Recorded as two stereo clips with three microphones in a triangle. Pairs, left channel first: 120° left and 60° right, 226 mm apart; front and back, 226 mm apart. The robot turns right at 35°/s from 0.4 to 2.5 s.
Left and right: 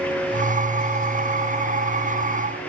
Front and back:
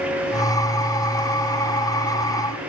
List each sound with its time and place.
Only background noise.